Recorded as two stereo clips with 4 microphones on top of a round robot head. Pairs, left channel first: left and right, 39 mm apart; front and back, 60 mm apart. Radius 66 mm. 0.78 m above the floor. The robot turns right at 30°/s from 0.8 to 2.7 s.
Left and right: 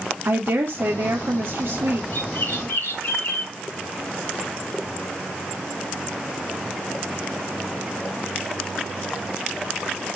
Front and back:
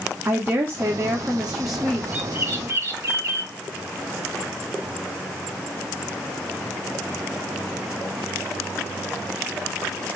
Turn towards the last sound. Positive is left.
turn(degrees=130)